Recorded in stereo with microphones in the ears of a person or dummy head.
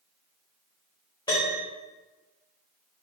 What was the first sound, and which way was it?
A piano, 20° left (ahead or behind).